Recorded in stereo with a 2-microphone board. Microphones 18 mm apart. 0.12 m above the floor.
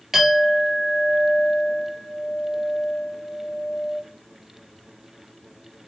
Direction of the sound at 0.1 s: 15° right (ahead or behind).